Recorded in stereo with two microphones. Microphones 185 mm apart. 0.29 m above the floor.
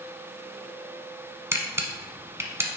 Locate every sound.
1.5 s a camera shutter: 15° right (ahead or behind), 0.8 m